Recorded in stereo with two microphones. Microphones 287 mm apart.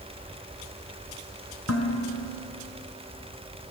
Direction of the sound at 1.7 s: 65° left (ahead or behind).